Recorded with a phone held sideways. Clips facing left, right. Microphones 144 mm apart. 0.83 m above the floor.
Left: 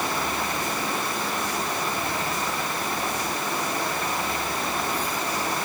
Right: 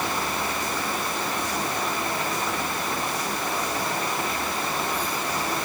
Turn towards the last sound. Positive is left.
No sound to turn to.